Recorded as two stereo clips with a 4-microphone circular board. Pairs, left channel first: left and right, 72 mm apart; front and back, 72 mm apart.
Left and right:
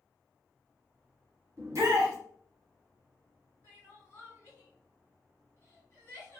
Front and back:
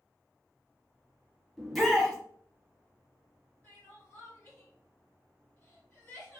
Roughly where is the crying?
Ahead left.